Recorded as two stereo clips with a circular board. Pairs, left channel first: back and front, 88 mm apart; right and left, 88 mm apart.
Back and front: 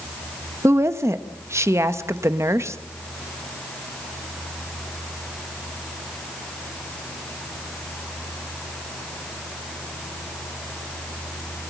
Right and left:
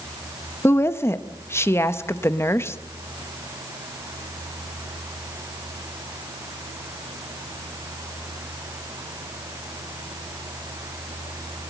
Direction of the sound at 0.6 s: 45° right.